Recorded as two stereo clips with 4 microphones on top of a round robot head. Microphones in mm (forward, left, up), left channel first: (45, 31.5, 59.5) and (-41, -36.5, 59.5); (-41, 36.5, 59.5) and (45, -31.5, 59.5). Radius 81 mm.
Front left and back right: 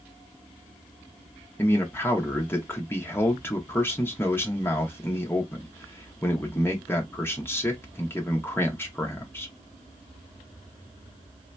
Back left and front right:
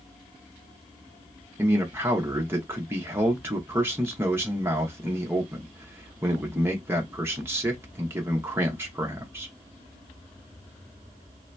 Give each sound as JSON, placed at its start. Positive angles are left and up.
{"t": 1.6, "sound": "a man speaking", "azimuth_deg": -5, "distance_m": 0.8}